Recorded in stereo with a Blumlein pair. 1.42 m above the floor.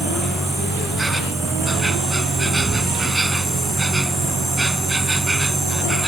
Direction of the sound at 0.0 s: 10° right.